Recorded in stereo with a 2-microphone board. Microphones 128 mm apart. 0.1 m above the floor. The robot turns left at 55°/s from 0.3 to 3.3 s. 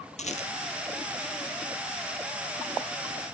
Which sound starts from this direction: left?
A rattle, at 0.2 s.